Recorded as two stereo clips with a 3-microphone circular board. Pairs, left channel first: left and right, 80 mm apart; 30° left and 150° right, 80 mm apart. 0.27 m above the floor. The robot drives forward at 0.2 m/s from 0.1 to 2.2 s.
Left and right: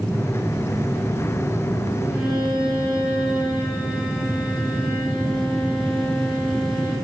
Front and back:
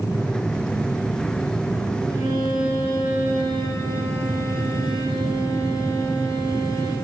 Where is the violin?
165° right, 5 m.